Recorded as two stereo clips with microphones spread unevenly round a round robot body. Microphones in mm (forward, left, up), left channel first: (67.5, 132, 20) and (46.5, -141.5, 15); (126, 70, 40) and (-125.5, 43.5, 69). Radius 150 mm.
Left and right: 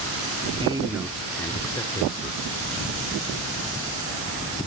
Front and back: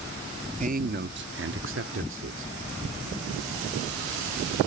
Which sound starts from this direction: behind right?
A man speaking, at 0.6 s.